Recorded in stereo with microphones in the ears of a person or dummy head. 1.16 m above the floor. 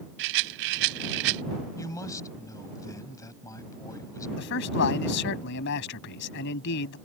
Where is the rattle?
60° right (ahead or behind).